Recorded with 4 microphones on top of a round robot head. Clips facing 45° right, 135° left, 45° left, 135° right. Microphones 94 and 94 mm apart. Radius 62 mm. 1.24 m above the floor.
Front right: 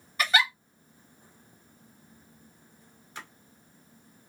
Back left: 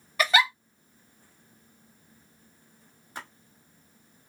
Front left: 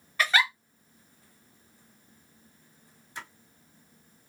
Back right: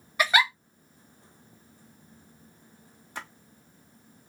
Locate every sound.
0.2 s a giggle: 150° left, 0.9 m
3.1 s a splash: 170° right, 1.1 m